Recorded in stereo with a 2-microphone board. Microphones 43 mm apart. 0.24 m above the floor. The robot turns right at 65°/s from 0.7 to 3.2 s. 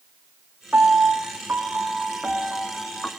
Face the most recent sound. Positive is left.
turn(degrees=30)